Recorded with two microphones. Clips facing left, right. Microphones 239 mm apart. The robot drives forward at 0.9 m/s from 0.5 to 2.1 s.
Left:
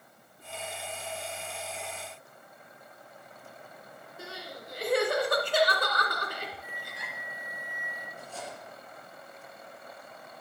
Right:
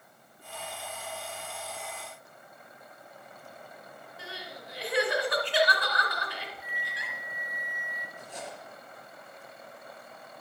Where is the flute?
30° left (ahead or behind), 1.7 m.